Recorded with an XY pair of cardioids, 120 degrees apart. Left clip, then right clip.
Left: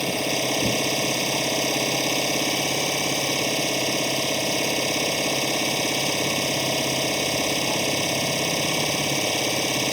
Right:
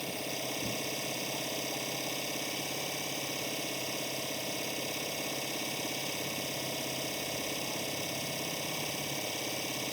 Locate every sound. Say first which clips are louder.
0.0 s an engine running: left 13 dB; 65° left